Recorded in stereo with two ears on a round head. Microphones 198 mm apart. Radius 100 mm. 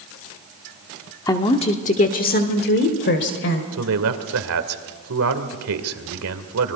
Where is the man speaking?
70° right (ahead or behind), 2 m.